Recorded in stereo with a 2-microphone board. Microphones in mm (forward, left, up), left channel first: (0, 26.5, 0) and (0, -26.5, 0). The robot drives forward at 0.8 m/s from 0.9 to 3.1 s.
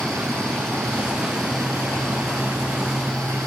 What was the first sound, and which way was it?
Running water, 60° right (ahead or behind).